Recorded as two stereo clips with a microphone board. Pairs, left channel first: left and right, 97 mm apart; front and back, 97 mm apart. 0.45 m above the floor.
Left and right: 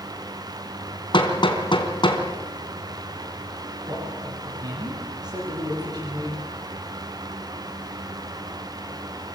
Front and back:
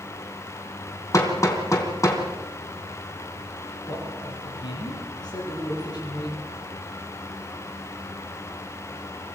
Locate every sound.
1.1 s hammering: 55° left, 3.5 m
3.9 s a man speaking: 45° right, 10 m